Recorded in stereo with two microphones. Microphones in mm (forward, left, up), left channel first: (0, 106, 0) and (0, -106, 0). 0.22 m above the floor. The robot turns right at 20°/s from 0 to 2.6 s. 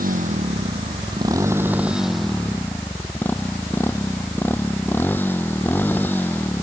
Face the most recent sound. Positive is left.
turn(degrees=10)